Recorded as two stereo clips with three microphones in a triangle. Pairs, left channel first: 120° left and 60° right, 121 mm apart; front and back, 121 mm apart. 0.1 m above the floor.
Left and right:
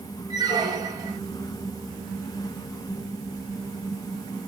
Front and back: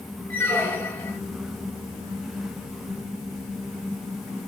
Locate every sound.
0.3 s a squeak: 60° right, 0.6 m